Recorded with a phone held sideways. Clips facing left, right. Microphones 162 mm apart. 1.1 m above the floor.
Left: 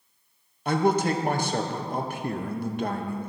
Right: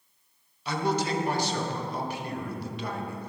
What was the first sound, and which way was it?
A man speaking, 50° left (ahead or behind).